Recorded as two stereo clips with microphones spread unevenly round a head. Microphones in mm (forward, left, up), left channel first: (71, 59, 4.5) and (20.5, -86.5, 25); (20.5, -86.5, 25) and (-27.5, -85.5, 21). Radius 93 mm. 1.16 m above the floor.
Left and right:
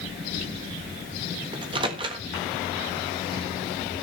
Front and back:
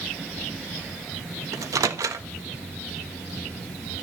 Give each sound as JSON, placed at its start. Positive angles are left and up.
{"t": 1.5, "sound": "a microwave", "azimuth_deg": -175, "distance_m": 1.3}